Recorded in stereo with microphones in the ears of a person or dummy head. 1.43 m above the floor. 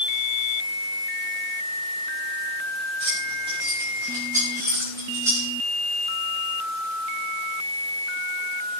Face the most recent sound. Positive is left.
turn(degrees=-15)  # may be behind; listen again after turning